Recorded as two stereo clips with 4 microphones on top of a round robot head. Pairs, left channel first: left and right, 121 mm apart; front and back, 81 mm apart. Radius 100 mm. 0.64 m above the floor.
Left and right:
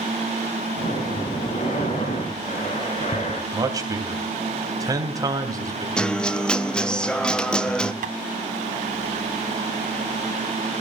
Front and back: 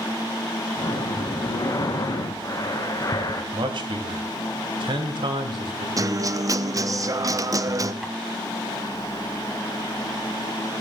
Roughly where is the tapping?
Right.